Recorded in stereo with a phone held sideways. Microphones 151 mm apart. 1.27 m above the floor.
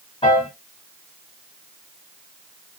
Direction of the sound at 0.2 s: 35° left (ahead or behind).